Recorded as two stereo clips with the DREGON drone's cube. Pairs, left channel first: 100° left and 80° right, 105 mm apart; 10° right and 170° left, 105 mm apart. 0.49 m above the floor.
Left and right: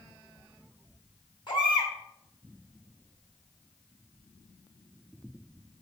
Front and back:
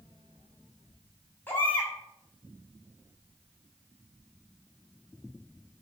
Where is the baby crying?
60° left, 3 m.